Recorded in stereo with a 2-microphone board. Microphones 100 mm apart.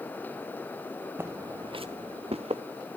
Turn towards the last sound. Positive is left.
turn(degrees=-85)